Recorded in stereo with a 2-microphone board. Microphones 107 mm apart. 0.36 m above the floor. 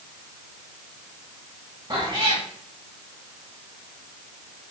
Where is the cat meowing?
45° right (ahead or behind), 7.5 m.